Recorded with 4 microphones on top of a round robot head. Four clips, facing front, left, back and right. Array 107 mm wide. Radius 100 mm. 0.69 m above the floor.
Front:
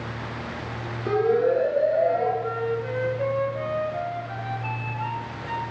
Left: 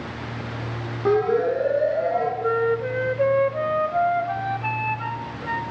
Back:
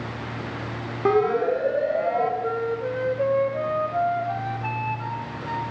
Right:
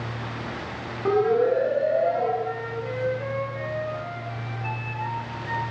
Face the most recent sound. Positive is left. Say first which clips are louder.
# left 8 dB, back 1 dB
turn(degrees=120)